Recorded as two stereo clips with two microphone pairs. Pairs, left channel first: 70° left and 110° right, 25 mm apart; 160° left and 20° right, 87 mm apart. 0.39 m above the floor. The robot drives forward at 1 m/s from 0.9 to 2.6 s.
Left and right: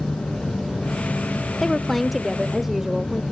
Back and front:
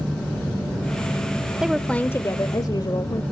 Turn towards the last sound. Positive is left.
turn(degrees=170)